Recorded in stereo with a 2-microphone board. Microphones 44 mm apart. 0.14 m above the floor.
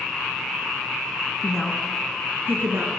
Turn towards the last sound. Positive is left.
turn(degrees=-60)  # may be behind; listen again after turning